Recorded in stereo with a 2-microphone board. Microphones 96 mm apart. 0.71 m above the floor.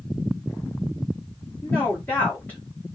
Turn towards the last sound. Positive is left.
turn(degrees=20)  # may be behind; listen again after turning